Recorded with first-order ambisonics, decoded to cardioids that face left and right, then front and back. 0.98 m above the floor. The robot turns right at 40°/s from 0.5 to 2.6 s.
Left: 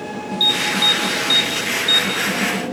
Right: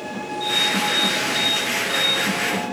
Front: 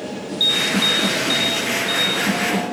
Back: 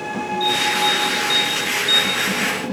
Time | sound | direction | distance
0.4 | an alarm | 55° left | 5 m